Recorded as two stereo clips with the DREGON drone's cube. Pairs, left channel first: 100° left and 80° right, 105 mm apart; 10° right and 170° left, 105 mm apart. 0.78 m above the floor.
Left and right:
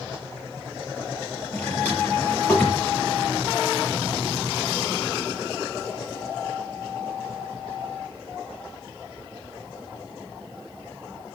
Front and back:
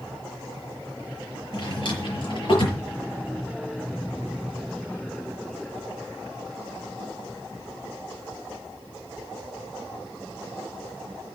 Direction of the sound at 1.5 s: 25° left.